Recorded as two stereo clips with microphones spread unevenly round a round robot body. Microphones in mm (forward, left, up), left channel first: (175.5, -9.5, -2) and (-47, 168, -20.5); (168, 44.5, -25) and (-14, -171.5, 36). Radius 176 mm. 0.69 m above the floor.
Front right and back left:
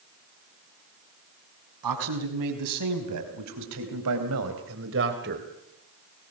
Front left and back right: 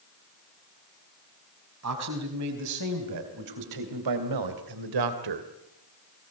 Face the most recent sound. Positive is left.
turn(degrees=-155)